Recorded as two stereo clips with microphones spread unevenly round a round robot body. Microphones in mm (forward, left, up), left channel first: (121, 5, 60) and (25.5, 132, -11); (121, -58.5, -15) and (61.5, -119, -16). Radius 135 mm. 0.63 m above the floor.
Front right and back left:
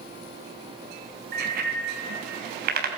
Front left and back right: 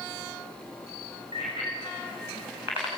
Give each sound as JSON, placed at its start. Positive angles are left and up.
{"t": 1.3, "sound": "a bicycle bell", "azimuth_deg": 155, "distance_m": 5.5}